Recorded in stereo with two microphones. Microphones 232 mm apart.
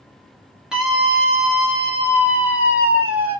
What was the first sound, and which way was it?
A scream, 5° right (ahead or behind).